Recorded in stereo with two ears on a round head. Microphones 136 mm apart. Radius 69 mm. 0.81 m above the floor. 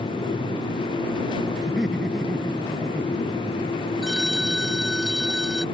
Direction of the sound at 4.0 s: Centre (ahead or behind).